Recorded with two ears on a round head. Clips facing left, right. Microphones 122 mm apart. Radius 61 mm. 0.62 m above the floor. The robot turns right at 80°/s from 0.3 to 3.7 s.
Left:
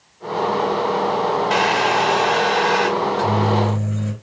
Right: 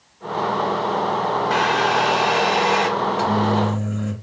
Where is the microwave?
20° right, 2 m; by 4.1 s 40° left, 2 m.